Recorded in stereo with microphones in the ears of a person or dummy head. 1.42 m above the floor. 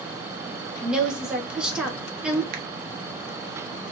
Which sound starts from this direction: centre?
A woman speaking, at 0.8 s.